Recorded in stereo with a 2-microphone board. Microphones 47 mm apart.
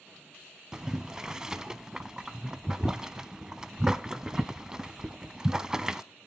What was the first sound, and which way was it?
Boiling, 15° right (ahead or behind).